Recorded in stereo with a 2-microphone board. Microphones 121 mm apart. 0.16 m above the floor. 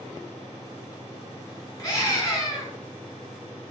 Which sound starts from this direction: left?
A scream, at 1.8 s.